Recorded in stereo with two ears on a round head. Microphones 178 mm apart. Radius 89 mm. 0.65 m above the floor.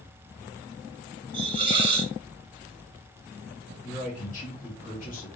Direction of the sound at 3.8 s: 40° left (ahead or behind).